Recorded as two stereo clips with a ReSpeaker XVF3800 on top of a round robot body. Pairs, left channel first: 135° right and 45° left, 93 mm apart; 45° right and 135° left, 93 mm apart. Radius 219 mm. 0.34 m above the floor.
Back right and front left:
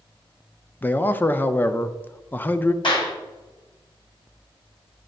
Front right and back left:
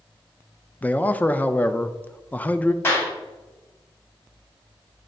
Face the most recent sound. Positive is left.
turn(degrees=-110)